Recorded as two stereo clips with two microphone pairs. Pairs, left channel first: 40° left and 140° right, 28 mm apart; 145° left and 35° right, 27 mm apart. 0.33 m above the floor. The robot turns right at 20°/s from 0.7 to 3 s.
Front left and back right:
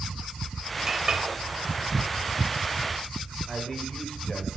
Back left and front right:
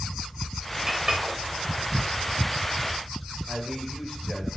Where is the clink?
85° right, 0.9 m; by 1.2 s 80° right, 0.9 m.